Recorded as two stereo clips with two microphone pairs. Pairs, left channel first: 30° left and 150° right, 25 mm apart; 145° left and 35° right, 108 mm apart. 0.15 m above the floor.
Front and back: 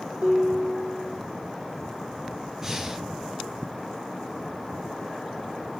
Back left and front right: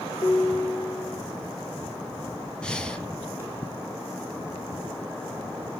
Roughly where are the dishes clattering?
Behind.